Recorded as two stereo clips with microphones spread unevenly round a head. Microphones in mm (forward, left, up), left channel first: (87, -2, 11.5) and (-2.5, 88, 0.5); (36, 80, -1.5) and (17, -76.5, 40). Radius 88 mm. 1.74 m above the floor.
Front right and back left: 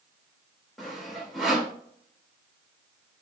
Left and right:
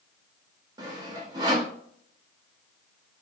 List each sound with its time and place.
0.8 s sawing: 130° right, 1.7 m